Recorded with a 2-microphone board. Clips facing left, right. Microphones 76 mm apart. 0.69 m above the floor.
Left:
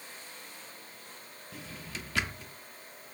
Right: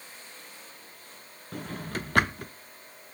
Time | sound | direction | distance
1.5 | a drawer | 50° right (ahead or behind) | 0.5 m